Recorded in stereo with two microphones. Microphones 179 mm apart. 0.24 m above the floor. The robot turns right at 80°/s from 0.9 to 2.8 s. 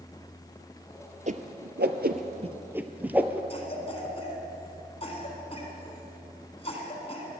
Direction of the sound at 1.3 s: 45° right (ahead or behind).